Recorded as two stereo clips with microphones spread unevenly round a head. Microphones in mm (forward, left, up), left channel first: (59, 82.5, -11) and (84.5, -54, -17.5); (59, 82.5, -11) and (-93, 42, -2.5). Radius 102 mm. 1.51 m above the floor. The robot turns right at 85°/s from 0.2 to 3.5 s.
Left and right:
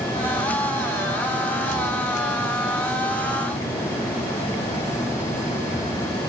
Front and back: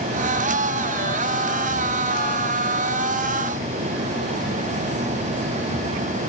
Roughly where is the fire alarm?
No fire alarm in this recording.